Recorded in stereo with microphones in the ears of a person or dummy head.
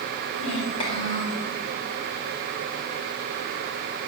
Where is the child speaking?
40° left (ahead or behind), 3.5 m; by 1.5 s 30° left (ahead or behind), 4 m.